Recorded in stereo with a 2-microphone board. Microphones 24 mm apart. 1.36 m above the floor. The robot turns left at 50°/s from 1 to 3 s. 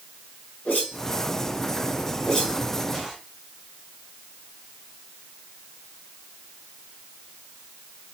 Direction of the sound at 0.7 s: 75° left (ahead or behind).